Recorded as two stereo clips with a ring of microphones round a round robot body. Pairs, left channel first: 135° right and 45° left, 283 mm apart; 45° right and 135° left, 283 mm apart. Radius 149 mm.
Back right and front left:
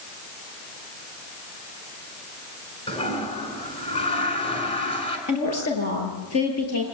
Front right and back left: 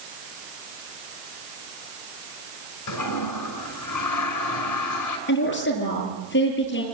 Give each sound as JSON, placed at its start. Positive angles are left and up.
{"t": 2.9, "sound": "a toilet flushing", "azimuth_deg": -65, "distance_m": 5.5}
{"t": 5.3, "sound": "a woman speaking", "azimuth_deg": -100, "distance_m": 9.5}